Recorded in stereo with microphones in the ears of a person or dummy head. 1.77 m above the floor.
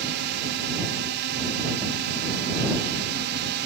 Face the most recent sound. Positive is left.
turn(degrees=-55)  # may be behind; listen again after turning